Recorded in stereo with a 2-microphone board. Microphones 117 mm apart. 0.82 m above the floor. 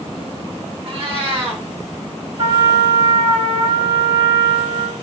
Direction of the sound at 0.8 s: 50° right (ahead or behind).